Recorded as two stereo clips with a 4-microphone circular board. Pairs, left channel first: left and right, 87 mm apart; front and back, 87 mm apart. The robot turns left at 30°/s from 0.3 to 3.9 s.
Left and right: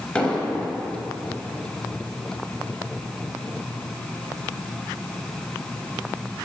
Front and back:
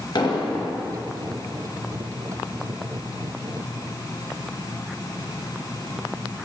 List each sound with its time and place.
0.1 s an explosion: 15° left, 0.9 m; by 0.7 s straight ahead, 0.9 m